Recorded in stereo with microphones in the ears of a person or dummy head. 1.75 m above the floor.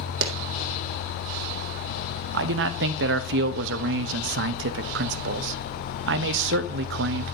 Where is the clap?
65° right (ahead or behind), 2 m.